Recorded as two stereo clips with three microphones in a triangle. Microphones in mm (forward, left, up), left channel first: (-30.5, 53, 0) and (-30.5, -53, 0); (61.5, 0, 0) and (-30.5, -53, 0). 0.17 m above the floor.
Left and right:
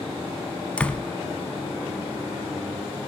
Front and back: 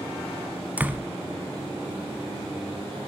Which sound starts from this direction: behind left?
A door slam, at 0.8 s.